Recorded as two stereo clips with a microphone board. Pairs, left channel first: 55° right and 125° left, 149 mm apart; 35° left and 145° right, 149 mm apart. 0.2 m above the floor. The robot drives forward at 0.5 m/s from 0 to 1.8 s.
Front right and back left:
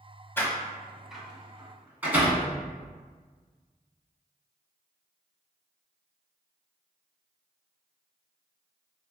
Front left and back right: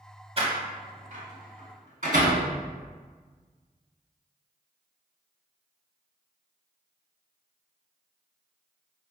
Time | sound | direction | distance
0.4 | a door slam | 125° right | 0.8 m